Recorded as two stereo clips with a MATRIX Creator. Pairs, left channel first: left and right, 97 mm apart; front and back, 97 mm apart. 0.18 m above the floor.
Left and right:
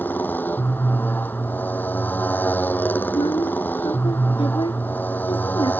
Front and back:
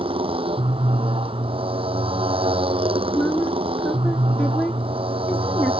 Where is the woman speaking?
75° left.